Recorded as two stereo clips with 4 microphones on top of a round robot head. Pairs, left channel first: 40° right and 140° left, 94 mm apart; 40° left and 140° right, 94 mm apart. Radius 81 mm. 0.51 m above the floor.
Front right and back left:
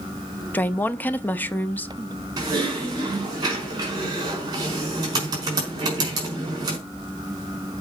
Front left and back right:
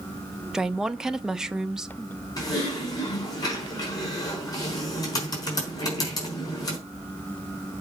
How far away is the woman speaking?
About 0.8 m.